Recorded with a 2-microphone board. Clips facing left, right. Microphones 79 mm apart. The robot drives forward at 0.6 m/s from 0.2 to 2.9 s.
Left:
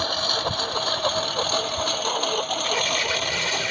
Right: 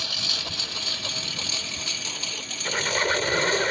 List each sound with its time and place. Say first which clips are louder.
0.0 s a lawn mower: left 10 dB; 45° left (ahead or behind); by 3.7 s 60° left (ahead or behind)
2.6 s a squeak: even; 45° right (ahead or behind); by 3.7 s 40° right (ahead or behind)